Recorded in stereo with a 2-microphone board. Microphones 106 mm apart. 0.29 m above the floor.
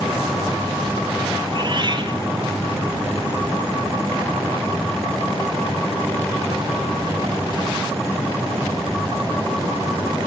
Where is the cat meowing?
45° right (ahead or behind), 1.7 m.